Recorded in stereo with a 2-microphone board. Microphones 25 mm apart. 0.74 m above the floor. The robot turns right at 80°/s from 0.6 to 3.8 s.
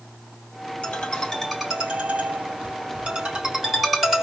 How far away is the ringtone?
About 3.5 m.